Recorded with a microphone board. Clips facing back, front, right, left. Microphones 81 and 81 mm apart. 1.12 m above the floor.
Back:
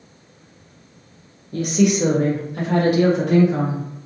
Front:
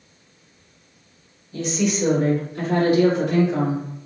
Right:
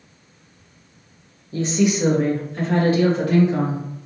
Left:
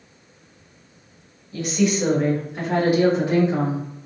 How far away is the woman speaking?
About 0.8 m.